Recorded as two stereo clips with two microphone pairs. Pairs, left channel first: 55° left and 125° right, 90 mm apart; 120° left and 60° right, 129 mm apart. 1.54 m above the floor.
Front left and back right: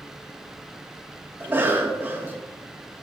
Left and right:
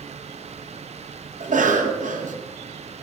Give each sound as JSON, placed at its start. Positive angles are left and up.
{"t": 1.4, "sound": "a cough", "azimuth_deg": -60, "distance_m": 0.7}